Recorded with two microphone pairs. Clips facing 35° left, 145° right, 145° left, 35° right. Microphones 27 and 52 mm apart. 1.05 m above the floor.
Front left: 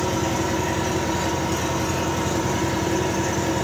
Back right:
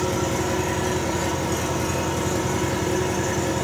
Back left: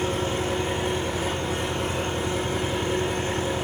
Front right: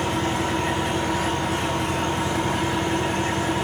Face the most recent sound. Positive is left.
turn(degrees=-35)